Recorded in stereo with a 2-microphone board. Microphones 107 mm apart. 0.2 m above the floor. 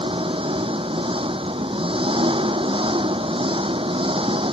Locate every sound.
0.0 s an engine running: 55° right (ahead or behind)